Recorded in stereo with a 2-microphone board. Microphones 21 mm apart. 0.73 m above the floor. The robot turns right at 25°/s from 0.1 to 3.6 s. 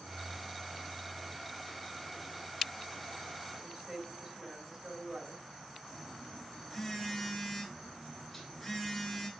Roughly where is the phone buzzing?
Centre.